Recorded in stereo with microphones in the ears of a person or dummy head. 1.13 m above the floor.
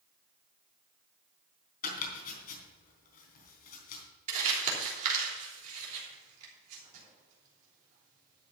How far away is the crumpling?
About 3 m.